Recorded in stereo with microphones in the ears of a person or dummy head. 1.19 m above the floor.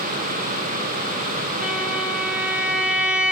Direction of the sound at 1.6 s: 5° right (ahead or behind).